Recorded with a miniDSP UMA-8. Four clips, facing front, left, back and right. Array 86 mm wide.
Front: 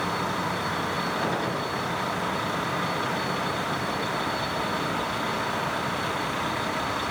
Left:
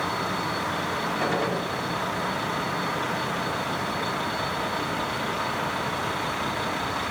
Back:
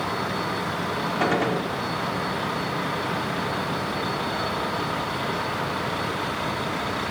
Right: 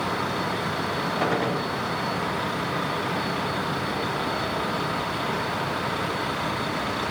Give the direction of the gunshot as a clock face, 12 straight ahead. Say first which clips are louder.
Right 2 dB, back 4 dB; 6 o'clock.